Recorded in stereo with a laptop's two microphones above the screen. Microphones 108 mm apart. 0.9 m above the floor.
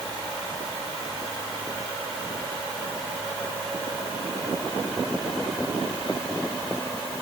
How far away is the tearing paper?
I don't hear tearing paper.